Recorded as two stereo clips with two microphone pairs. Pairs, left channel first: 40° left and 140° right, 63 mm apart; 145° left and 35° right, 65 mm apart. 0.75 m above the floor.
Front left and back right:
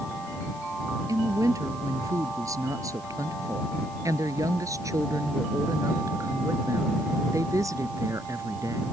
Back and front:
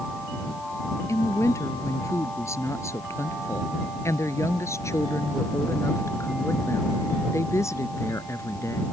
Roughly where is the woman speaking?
Behind.